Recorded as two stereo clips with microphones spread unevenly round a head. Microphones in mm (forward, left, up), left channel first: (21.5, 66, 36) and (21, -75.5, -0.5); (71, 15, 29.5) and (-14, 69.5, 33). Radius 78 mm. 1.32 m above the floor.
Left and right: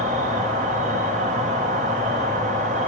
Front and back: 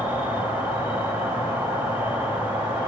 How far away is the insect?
About 0.8 m.